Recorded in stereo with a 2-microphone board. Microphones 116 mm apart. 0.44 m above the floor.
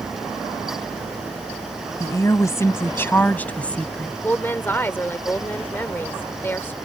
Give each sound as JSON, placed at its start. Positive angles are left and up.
{"t": 2.0, "sound": "a woman speaking", "side_deg": 30}
{"t": 4.2, "sound": "a woman speaking", "side_deg": 20}